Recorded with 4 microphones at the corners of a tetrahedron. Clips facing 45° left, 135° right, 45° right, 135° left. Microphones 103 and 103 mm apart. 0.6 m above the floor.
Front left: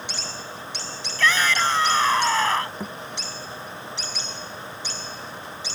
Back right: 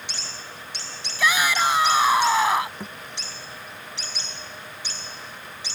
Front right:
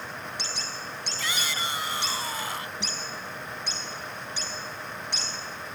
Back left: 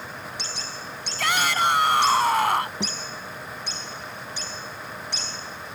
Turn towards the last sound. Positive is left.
turn(degrees=120)